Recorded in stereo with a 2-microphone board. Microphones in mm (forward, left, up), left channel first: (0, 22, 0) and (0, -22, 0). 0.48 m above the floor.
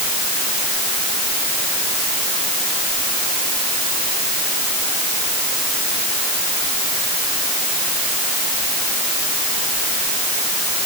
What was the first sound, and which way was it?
Only background noise.